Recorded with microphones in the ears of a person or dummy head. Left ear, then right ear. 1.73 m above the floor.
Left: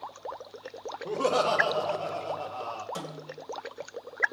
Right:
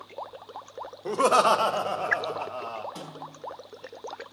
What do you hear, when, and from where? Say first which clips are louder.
1.1 s laughter: right 6 dB; 65° right (ahead or behind), 1.0 m; by 2.9 s 15° right (ahead or behind), 1.0 m
3.0 s a snare drum: left 1 dB; 60° left (ahead or behind), 2.5 m